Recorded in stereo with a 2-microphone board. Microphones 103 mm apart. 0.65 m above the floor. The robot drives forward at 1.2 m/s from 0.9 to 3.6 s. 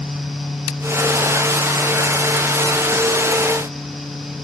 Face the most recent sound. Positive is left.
No sound to turn to.